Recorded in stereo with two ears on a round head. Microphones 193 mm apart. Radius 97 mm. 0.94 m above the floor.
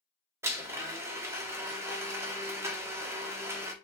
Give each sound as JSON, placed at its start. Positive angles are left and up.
{"t": 0.4, "sound": "a blender", "side_deg": -10, "distance_m": 0.8}